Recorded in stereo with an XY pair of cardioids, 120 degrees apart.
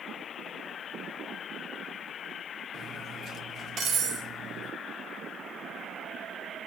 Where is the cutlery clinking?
50° right, 1.7 m.